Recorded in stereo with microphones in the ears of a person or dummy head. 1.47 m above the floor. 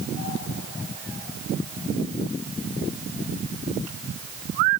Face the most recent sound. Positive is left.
No sound to turn to.